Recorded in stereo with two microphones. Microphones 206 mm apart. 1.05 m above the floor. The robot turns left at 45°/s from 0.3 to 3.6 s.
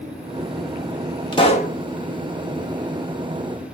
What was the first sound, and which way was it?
A pop, 25° left (ahead or behind).